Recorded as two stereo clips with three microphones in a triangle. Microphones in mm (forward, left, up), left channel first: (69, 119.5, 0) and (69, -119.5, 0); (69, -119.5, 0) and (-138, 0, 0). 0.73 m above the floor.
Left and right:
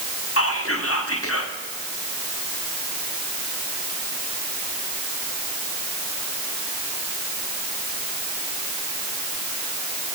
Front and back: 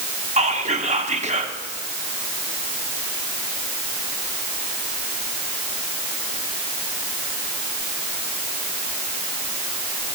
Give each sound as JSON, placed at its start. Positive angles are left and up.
{"t": 0.4, "sound": "whispering", "azimuth_deg": 90, "distance_m": 1.2}